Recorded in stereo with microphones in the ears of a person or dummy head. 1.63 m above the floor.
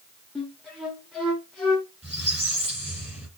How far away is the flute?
About 1.3 m.